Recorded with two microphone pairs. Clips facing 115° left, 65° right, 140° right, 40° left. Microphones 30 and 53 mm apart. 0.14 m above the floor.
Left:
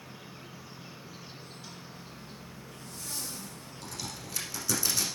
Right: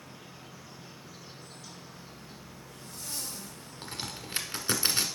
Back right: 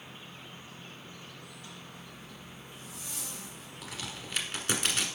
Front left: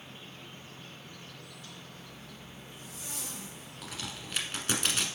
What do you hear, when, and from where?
0.0 s an insect: 165° left, 1.6 m
1.9 s a zipper: 20° left, 3.5 m
3.8 s a crack: 55° right, 1.2 m